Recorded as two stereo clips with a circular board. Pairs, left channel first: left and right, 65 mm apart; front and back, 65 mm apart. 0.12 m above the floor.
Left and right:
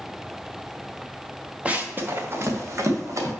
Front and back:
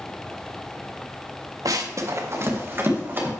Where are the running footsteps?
160° right, 1.4 m; by 3.3 s 120° right, 3 m.